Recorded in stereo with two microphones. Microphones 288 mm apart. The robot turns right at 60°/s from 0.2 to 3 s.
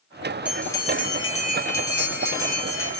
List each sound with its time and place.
0.5 s a bell: 5° right, 1.7 m; by 3.0 s 145° left, 1.7 m